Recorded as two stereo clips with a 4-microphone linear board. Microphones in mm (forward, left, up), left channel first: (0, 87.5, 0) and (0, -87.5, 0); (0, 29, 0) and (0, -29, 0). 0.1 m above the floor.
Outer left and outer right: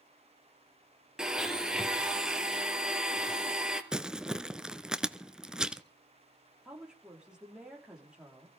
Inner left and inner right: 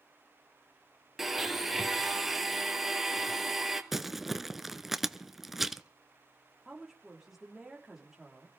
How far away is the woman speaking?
About 6.5 m.